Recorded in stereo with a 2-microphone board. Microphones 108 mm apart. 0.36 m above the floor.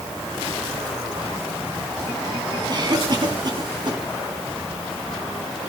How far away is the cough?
About 3 m.